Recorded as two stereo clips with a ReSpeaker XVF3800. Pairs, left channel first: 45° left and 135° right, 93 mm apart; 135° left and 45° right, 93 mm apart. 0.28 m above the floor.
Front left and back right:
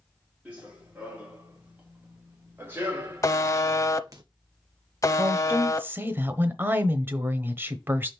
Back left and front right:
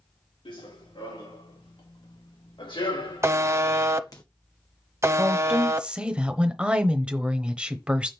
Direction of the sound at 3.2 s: 5° left.